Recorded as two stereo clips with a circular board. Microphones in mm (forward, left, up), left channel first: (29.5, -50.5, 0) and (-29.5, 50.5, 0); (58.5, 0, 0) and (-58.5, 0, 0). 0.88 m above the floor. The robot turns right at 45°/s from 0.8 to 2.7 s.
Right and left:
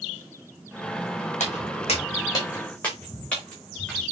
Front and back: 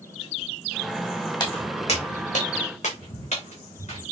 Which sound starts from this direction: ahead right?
Footsteps, at 1.4 s.